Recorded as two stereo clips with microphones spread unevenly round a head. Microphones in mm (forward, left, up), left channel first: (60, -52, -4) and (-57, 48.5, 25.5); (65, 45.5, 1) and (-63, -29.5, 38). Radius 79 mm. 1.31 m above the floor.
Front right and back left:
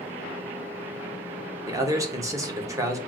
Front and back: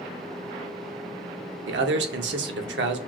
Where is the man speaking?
150° right, 0.7 m.